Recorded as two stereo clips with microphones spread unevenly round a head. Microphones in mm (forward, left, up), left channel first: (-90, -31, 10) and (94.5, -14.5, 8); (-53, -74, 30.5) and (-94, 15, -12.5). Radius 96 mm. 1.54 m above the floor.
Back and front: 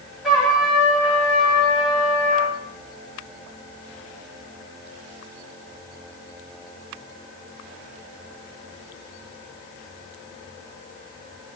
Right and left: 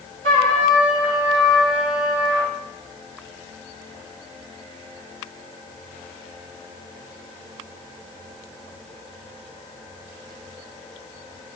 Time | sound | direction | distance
0.2 | a trumpet | 95° left | 1.6 m